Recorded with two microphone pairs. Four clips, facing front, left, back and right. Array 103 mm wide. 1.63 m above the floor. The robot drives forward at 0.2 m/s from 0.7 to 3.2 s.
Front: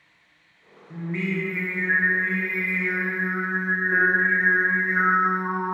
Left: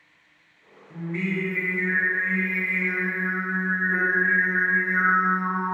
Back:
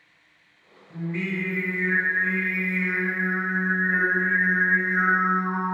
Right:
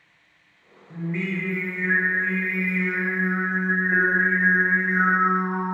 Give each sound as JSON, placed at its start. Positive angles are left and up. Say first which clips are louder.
{"t": 0.9, "sound": "singing", "louder": "even, front 1 dB", "azimuth_deg": -25, "distance_m": 1.1}